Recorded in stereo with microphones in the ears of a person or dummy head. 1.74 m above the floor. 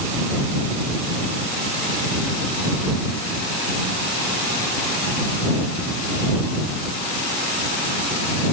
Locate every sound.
Only background noise.